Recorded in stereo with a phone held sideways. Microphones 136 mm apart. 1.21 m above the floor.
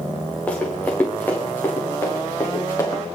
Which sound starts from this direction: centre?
Running footsteps, at 0.5 s.